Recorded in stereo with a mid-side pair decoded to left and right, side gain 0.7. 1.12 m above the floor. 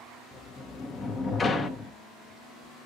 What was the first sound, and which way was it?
A sliding door, 25° left.